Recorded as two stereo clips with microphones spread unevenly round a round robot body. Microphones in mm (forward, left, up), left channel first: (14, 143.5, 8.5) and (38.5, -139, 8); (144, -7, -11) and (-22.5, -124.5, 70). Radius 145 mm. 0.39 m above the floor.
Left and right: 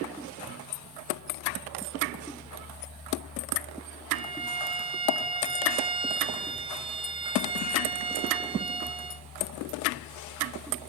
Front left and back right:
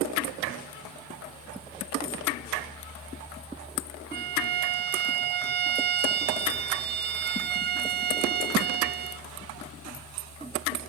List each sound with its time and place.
4.1 s a violin: 120° right, 0.6 m